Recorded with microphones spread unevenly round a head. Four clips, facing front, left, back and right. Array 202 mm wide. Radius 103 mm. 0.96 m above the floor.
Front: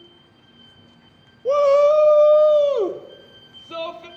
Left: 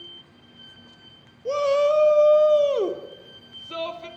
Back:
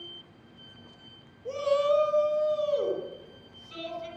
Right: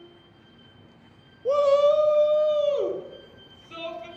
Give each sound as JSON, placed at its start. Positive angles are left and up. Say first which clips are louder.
{"t": 1.4, "sound": "a shout", "louder": "right 2 dB, front 11 dB", "azimuth_deg": -15, "distance_m": 1.3}